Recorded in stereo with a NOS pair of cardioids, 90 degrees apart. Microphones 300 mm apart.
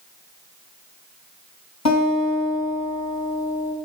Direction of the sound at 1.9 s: 60° left.